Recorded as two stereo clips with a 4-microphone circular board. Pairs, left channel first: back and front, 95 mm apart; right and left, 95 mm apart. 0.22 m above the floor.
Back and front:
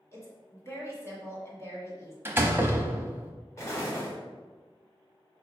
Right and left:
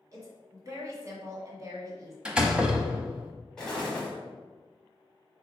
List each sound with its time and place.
0.1 s a woman speaking: 130° left, 1.7 m
2.2 s a door slam: 25° left, 0.7 m
3.6 s an explosion: 165° right, 1.7 m